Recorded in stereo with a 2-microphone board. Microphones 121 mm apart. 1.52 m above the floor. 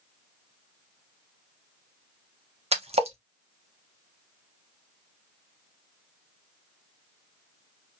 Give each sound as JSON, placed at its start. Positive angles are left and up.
{"t": 2.7, "sound": "a splash", "side_deg": -65, "distance_m": 0.9}